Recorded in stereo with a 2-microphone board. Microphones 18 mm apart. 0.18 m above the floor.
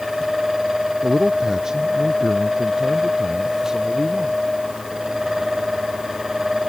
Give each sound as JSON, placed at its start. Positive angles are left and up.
{"t": 1.0, "sound": "a man speaking", "side_deg": -35}